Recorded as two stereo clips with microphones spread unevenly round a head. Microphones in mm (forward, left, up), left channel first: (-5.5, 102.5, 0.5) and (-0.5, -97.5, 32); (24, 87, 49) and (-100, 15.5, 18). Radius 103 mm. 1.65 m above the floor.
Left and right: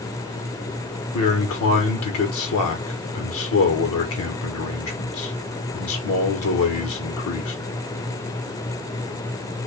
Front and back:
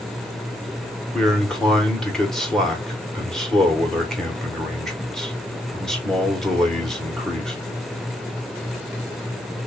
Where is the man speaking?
115° left, 1.5 m.